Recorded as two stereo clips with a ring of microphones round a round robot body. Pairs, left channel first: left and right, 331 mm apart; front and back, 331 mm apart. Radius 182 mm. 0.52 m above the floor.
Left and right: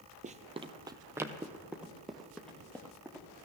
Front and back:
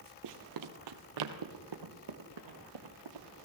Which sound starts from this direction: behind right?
Running footsteps, at 0.2 s.